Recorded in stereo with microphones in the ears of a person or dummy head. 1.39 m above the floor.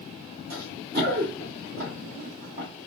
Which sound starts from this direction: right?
Running footsteps, at 0.5 s.